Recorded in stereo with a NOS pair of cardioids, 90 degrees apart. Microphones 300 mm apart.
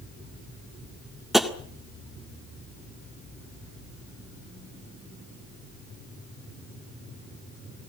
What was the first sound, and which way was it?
Tapping, straight ahead.